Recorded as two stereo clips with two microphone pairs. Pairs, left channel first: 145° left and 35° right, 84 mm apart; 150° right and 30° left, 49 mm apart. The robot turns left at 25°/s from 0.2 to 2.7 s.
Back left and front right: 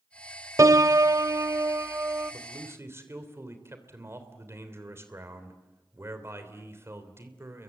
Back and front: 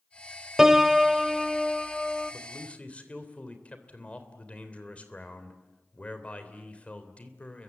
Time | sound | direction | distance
0.6 | a piano | 35° right | 0.5 m
2.3 | a man speaking | 80° right | 3 m